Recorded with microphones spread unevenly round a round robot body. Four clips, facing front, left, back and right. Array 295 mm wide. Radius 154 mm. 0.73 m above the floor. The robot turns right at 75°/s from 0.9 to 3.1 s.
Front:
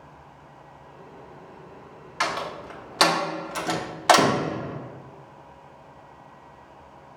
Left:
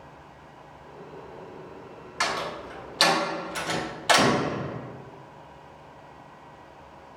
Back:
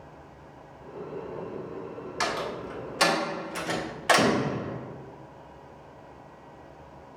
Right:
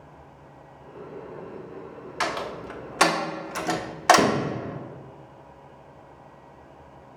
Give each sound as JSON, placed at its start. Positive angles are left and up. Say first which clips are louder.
{"t": 2.2, "sound": "a door slam", "louder": "even, front 2 dB", "azimuth_deg": -145, "distance_m": 0.7}